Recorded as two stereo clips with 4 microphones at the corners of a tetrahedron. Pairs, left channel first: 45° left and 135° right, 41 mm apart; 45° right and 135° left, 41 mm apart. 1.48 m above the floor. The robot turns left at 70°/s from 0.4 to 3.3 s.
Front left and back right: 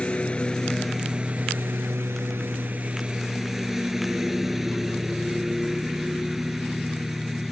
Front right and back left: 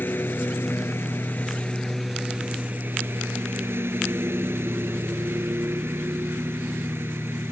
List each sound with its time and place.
0.0 s a lawn mower: 15° right; by 7.5 s 145° left